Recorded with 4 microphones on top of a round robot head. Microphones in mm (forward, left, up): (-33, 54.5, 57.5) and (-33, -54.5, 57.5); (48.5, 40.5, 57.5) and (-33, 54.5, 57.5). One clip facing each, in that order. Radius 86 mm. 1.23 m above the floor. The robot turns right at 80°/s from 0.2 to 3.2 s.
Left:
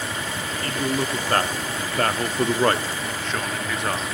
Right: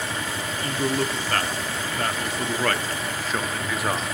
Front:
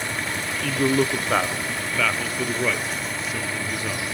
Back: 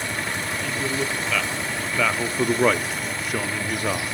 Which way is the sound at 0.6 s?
20° right.